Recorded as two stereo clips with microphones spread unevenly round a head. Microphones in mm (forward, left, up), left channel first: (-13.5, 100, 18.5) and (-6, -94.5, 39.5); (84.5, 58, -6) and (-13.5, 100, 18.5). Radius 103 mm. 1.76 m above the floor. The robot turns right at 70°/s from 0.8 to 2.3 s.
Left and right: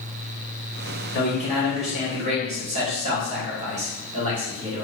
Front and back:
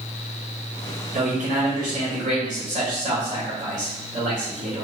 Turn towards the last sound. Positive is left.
turn(degrees=-145)